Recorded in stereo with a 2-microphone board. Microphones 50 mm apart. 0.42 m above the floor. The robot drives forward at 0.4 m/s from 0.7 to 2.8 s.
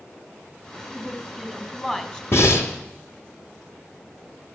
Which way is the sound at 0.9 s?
10° left (ahead or behind).